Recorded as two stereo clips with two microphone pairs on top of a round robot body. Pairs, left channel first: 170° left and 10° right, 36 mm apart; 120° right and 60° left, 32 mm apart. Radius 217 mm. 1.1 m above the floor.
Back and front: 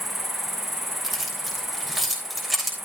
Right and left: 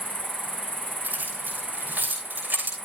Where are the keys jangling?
80° left, 6 m.